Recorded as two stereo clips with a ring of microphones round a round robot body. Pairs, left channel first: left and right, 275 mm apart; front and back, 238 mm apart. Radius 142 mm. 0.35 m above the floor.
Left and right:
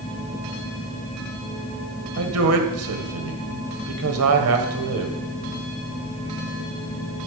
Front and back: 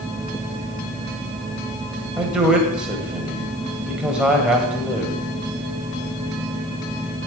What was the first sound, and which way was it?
A man speaking, 95° right.